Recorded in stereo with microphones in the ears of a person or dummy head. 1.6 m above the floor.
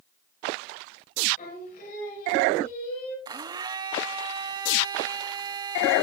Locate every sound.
1.4 s singing: 50° left (ahead or behind), 6.5 m
3.2 s a blender: 25° right (ahead or behind), 0.7 m